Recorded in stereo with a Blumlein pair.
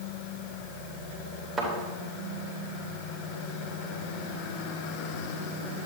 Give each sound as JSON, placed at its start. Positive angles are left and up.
{"t": 1.6, "sound": "a thud", "azimuth_deg": -10, "distance_m": 3.0}